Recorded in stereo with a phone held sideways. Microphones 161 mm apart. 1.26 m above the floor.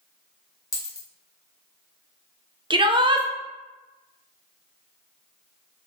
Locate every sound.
0.7 s a dropped coin: 20° left (ahead or behind), 0.9 m
2.7 s a shout: 30° right (ahead or behind), 0.6 m